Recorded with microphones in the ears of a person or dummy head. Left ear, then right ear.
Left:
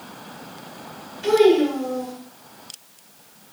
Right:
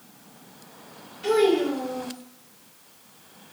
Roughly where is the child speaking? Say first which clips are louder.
Left 5 dB; centre.